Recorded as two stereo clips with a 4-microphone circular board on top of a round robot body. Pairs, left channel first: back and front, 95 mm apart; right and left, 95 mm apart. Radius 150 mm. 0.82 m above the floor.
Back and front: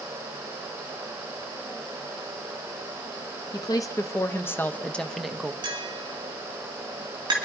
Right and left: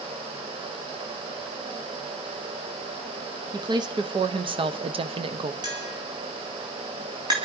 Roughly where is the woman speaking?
Behind left.